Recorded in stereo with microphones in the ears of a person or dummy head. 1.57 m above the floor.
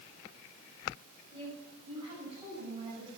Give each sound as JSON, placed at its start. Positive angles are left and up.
{"t": 1.3, "sound": "a woman speaking", "side_deg": -30, "distance_m": 7.0}